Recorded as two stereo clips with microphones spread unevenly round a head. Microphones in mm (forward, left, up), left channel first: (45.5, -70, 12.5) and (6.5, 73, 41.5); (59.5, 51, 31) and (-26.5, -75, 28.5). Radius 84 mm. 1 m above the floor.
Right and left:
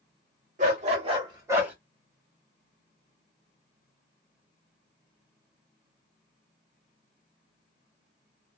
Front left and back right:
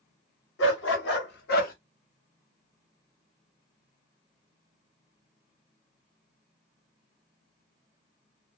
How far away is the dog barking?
About 1.3 m.